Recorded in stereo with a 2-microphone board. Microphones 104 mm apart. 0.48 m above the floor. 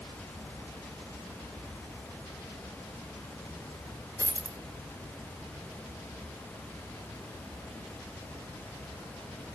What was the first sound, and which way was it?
A dropped coin, 30° right (ahead or behind).